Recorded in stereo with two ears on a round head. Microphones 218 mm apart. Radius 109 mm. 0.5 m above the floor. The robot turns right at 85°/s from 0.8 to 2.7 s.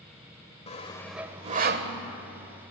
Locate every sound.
0.7 s sawing: 25° left (ahead or behind), 1.5 m; by 1.9 s 60° right (ahead or behind), 1.5 m